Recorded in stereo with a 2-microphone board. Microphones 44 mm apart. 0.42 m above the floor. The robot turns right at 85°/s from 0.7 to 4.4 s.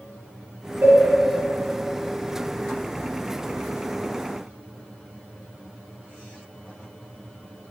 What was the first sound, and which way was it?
A cowbell, 65° right (ahead or behind).